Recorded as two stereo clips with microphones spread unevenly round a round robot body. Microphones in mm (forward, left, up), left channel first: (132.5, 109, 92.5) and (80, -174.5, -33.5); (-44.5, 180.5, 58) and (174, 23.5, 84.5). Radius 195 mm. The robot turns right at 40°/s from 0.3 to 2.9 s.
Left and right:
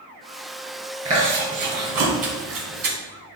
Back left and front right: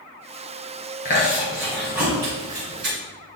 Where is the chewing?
160° right, 2 m; by 3.0 s 85° right, 2 m.